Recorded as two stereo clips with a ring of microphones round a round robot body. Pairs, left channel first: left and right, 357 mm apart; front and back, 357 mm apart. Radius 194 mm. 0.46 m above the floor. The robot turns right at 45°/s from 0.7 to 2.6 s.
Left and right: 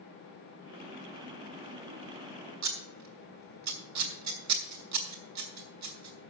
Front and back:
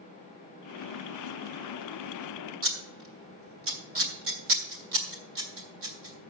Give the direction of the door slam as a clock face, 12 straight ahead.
I don't hear a door slam.